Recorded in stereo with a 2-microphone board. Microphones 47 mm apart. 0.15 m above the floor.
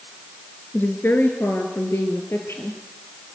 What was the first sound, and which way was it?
A woman speaking, 50° left (ahead or behind).